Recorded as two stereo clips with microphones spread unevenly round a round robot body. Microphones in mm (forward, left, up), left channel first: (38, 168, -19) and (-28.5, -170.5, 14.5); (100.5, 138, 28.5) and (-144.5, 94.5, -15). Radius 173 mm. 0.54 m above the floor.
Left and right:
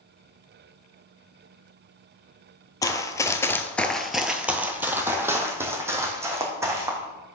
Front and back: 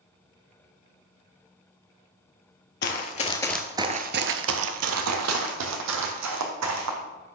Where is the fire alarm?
I don't hear a fire alarm.